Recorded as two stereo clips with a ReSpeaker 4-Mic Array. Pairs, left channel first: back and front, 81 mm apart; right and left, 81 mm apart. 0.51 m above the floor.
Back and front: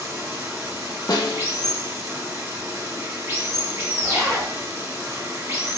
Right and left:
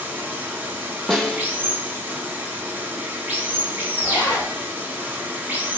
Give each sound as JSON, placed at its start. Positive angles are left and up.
{"t": 0.0, "sound": "running water", "azimuth_deg": 40, "distance_m": 1.0}
{"t": 1.1, "sound": "a snare drum", "azimuth_deg": -175, "distance_m": 0.7}
{"t": 4.0, "sound": "a zipper", "azimuth_deg": -105, "distance_m": 1.8}